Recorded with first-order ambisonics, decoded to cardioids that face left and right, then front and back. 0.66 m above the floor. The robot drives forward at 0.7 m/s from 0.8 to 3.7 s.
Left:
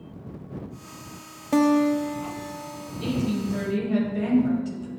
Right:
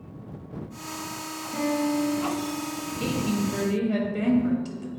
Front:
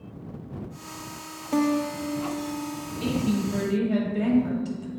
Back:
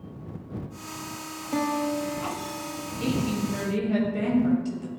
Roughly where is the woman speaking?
Right.